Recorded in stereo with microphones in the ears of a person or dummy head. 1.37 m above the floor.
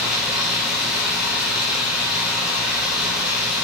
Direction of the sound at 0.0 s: 5° right (ahead or behind).